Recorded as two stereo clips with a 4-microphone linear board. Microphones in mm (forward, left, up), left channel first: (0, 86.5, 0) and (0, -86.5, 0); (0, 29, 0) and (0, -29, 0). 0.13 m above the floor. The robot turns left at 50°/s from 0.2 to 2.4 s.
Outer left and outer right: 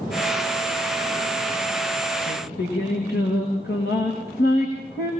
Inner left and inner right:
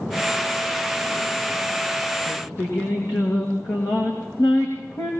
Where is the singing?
75° left (ahead or behind), 9 m; by 5.1 s 70° left (ahead or behind), 9 m.